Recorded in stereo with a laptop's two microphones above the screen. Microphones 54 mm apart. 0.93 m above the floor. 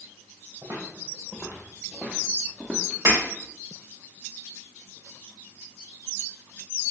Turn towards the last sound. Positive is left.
turn(degrees=-85)